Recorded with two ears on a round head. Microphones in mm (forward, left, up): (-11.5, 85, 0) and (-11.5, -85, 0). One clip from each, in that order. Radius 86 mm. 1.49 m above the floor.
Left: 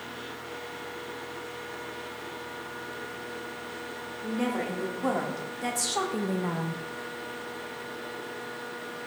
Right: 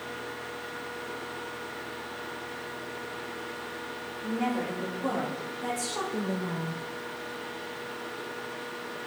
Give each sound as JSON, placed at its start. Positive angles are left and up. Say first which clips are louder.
{"t": 4.2, "sound": "a woman speaking", "louder": "even", "side_deg": 45, "distance_m": 2.5}